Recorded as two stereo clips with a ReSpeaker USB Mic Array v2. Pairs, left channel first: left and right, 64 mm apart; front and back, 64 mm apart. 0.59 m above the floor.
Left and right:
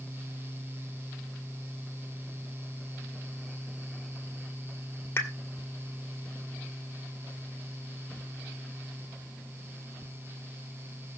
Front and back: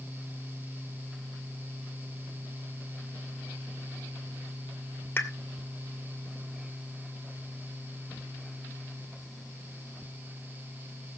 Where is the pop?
50° left, 1.9 m.